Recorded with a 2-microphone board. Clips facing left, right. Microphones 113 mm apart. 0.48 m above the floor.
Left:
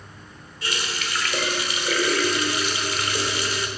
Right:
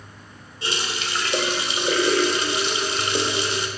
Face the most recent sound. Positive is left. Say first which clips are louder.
# right 2 dB
turn(degrees=-25)  # may be behind; listen again after turning